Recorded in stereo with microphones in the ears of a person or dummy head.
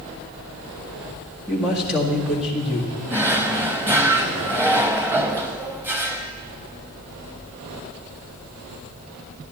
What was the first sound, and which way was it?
A man speaking, 5° right (ahead or behind).